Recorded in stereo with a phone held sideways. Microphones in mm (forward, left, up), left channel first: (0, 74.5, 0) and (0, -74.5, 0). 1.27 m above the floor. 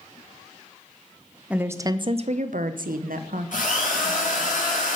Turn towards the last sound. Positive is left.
turn(degrees=65)  # may be behind; listen again after turning